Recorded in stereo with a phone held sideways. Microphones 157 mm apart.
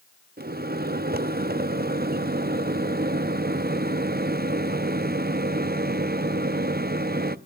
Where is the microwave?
80° right, 0.6 m.